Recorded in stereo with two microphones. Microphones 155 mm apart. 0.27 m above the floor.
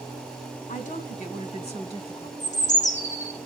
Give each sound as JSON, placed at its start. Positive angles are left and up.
{"t": 0.7, "sound": "a woman speaking", "side_deg": 55, "distance_m": 1.8}
{"t": 2.4, "sound": "a bird", "side_deg": 50, "distance_m": 6.0}